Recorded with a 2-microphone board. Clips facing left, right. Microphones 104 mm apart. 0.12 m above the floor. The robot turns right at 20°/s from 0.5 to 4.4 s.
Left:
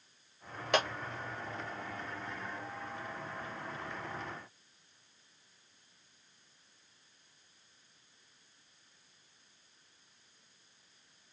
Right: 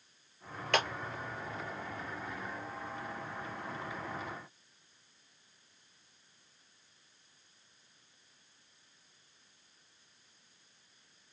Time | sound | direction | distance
0.7 | a clap | 20° left (ahead or behind) | 2.5 m